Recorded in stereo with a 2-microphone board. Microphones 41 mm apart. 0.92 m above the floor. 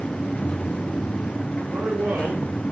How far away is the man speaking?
About 3.5 m.